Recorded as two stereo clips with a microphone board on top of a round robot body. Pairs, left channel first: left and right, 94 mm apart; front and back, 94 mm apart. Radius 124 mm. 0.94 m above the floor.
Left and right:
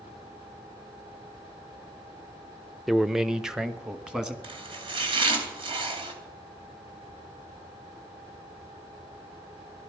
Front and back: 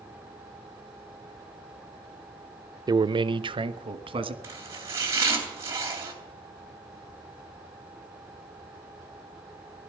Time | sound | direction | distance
2.9 | a man speaking | straight behind | 0.6 m
4.4 | chopping | 120° right | 3 m